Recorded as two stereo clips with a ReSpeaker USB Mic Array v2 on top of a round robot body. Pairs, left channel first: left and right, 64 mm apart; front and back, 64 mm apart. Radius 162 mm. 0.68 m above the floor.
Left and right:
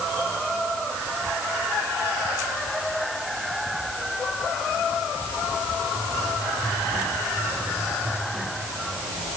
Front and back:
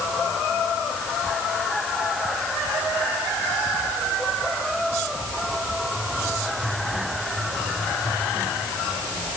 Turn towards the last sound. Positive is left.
No sound to turn to.